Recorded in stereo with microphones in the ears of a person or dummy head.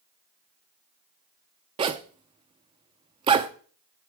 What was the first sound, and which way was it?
A zipper, 25° right (ahead or behind).